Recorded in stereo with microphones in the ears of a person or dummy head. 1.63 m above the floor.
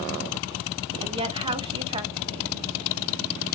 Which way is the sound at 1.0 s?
25° right (ahead or behind).